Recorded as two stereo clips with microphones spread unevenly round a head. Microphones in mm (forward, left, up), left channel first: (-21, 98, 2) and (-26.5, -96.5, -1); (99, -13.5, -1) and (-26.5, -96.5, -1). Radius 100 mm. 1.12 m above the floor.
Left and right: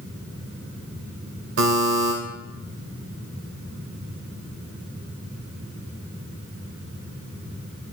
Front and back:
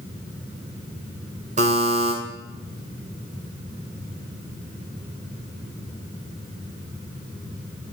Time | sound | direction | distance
1.6 | a buzzer | 110° right | 3 m